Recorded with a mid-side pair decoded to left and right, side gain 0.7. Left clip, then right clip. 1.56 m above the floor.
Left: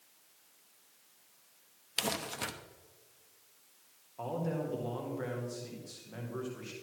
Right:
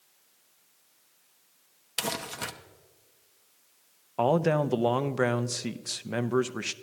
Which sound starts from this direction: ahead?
Crumpling, at 2.0 s.